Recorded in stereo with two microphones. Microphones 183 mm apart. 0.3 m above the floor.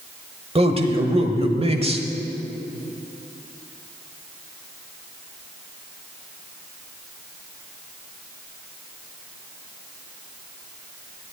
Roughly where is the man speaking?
Right.